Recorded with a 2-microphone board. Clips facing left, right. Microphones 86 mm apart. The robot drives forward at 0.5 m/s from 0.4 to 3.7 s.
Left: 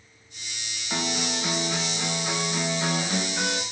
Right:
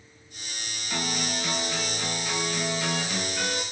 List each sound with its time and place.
0.9 s a guitar: 20° left (ahead or behind), 9 m; by 3.6 s 25° left (ahead or behind), 7.5 m